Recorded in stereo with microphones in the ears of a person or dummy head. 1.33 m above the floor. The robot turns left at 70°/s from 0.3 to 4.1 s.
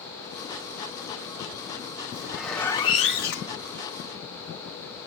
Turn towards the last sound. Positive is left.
turn(degrees=65)